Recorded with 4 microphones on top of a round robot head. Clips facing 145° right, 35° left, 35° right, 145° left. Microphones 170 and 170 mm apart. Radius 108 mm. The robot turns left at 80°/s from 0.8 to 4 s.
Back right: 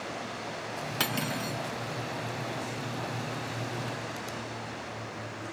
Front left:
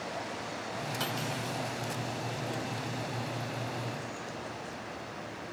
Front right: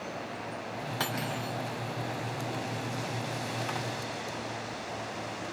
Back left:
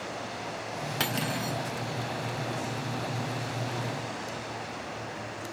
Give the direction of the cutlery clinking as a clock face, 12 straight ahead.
5 o'clock.